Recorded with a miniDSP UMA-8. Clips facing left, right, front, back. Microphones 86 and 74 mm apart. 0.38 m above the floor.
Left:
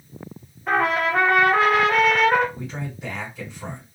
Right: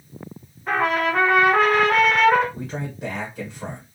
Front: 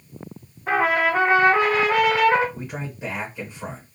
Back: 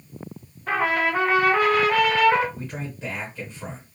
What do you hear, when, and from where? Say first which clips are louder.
0.7 s a trumpet: even, front 3 dB; 5° left, 1.0 m
2.5 s a man speaking: right 2 dB, front 1 dB; 75° right, 1.2 m